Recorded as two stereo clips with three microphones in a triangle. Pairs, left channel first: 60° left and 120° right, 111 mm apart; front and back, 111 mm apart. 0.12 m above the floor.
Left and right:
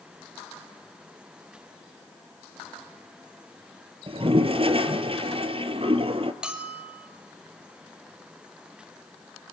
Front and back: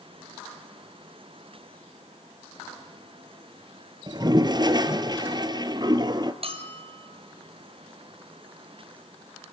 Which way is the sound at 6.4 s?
155° left.